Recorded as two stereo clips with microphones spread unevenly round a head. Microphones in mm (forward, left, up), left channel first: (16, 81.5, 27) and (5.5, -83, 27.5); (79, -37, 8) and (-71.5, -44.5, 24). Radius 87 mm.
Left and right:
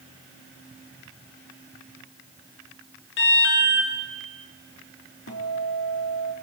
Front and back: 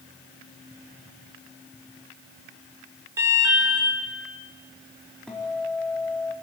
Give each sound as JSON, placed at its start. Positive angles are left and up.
{"t": 3.2, "sound": "an alarm", "azimuth_deg": 110, "distance_m": 4.5}
{"t": 5.3, "sound": "a guitar", "azimuth_deg": 90, "distance_m": 4.0}